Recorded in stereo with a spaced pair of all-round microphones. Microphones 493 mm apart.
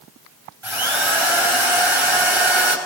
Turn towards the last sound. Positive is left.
turn(degrees=-75)  # may be behind; listen again after turning